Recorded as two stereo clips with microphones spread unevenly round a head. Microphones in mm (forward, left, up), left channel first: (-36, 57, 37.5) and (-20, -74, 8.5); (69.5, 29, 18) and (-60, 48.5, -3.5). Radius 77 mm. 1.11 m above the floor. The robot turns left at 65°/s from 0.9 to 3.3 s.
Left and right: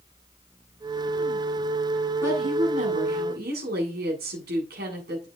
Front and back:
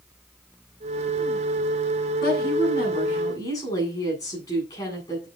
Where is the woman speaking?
10° right, 8.5 m; by 5.3 s 80° right, 8.5 m.